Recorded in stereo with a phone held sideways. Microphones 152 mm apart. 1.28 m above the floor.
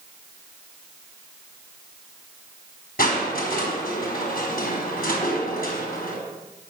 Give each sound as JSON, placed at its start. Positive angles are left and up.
{"t": 3.0, "sound": "crushing", "side_deg": 75, "distance_m": 4.5}